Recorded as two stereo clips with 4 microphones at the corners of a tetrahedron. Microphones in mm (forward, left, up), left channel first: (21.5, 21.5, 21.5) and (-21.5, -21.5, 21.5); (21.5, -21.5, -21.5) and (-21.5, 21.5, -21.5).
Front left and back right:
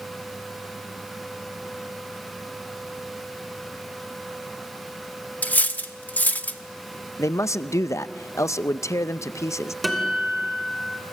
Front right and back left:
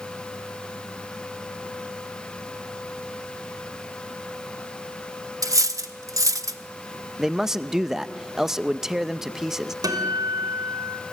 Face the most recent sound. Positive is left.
turn(degrees=135)